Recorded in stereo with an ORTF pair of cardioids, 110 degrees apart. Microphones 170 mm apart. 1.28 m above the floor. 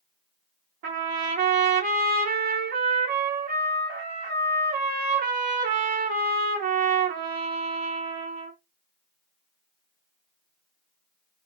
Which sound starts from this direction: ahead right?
A trumpet, at 0.8 s.